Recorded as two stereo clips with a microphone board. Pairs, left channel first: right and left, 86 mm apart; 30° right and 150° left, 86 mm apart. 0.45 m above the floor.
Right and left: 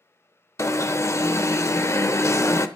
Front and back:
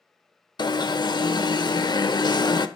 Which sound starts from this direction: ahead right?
An alarm, at 0.6 s.